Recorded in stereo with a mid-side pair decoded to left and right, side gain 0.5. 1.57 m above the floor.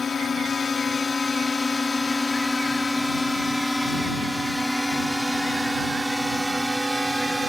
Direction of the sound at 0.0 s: 40° left.